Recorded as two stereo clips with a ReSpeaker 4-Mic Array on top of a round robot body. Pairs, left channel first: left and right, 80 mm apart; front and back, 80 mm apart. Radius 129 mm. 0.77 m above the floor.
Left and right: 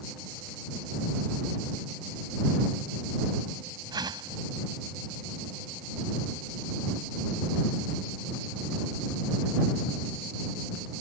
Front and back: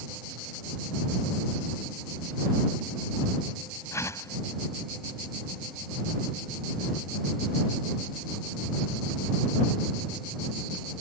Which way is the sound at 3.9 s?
55° right.